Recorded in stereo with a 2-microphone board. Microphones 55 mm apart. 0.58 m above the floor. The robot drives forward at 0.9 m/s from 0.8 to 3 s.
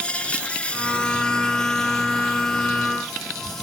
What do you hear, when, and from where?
0.0 s an insect: 25° left (ahead or behind), 0.8 m; by 3.6 s 5° left (ahead or behind), 2.5 m